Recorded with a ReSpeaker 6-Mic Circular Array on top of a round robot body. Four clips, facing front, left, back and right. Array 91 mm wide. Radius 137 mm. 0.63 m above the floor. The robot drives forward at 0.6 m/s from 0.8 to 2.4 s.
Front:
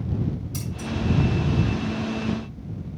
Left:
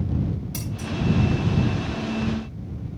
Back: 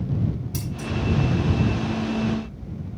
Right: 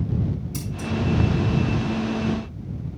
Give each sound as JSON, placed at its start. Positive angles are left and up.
{"t": 0.5, "sound": "scissors", "azimuth_deg": 120, "distance_m": 4.0}